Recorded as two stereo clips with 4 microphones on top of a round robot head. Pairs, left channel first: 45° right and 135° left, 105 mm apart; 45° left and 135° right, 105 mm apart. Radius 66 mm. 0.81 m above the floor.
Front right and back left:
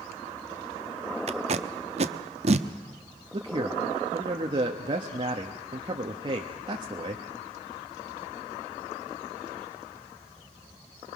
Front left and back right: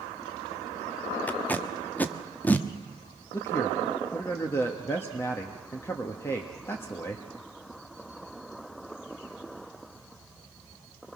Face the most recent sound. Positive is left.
turn(degrees=105)